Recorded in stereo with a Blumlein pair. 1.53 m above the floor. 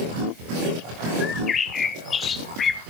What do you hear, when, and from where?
1.2 s a bird: 20° left, 0.8 m